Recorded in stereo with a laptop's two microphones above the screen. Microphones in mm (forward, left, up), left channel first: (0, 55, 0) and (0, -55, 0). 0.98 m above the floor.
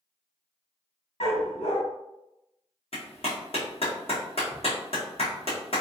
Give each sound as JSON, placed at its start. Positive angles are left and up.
{"t": 1.2, "sound": "a dog barking", "side_deg": 65, "distance_m": 1.6}
{"t": 2.9, "sound": "a clap", "side_deg": 60, "distance_m": 1.4}